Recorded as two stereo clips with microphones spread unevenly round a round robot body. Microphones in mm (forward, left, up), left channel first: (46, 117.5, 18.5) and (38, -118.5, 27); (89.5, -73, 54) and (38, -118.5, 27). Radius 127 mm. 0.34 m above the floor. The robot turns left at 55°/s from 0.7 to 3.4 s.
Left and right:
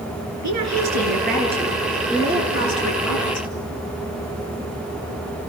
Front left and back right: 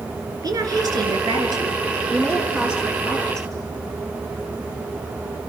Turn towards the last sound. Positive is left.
turn(degrees=95)